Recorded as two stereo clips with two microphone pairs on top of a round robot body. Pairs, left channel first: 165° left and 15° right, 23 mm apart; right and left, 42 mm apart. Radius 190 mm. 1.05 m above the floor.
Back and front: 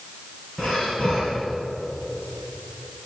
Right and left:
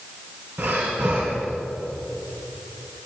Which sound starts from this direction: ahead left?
Breathing, at 0.6 s.